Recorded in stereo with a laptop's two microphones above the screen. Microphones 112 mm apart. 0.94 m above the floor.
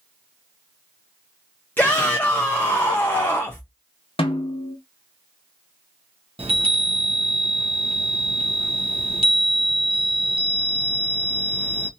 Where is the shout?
15° left (ahead or behind), 0.5 m.